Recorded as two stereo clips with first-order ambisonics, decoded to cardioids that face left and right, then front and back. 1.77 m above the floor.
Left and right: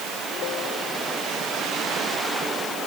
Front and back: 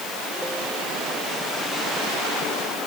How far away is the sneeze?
I don't hear a sneeze.